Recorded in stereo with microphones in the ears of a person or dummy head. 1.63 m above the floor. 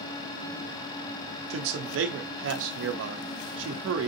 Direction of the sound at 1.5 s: 75° right (ahead or behind).